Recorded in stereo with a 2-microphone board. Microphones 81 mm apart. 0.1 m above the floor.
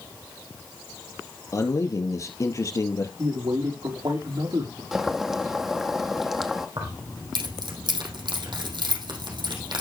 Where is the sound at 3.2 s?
65° right (ahead or behind), 4.5 m.